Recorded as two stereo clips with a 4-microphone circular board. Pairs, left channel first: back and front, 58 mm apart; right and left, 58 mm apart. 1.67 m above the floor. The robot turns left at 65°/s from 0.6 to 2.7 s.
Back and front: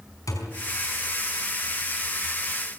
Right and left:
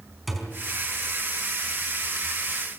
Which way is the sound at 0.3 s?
Straight behind.